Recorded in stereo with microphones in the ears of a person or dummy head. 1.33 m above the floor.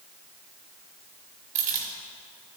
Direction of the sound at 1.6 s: 40° right (ahead or behind).